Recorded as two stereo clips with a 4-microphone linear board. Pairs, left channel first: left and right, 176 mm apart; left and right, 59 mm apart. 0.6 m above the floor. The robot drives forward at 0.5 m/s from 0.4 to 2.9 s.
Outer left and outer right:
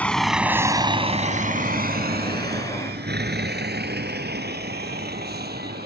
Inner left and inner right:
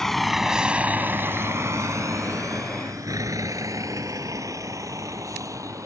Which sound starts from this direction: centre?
A vehicle, at 0.0 s.